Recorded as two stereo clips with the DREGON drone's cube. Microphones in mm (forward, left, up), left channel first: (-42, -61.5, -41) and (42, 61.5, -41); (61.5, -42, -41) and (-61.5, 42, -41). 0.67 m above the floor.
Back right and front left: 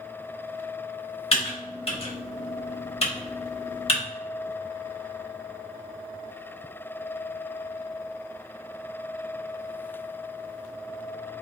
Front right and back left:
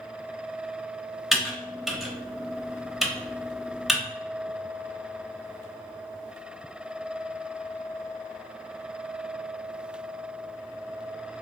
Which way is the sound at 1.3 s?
125° right.